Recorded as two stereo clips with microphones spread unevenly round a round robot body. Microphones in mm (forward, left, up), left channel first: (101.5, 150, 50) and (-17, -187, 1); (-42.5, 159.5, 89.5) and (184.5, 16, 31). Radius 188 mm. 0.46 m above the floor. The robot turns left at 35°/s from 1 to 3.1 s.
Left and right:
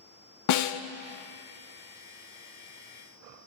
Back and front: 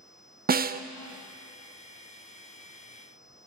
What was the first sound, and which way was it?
A snare drum, 25° left.